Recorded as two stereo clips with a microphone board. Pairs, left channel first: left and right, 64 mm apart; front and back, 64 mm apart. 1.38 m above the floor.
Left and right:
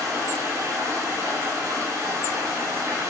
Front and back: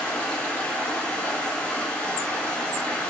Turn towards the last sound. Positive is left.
turn(degrees=-70)